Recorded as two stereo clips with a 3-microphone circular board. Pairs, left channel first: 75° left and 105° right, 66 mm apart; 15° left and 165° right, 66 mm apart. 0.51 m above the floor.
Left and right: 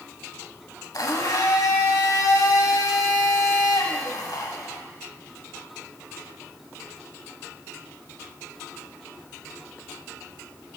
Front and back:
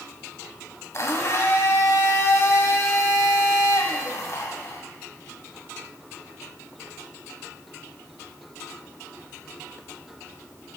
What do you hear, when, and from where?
0.9 s a blender: 55° left, 1.1 m